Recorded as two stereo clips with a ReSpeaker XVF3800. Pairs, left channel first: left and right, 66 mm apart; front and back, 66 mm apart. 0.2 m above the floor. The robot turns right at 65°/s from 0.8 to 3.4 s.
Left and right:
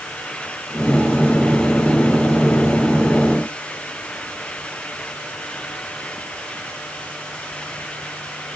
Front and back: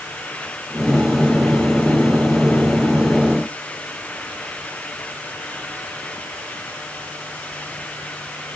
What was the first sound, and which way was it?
Only background noise.